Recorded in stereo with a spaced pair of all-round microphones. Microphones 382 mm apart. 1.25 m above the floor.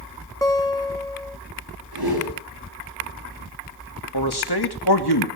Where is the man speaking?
80° left, 2.5 m.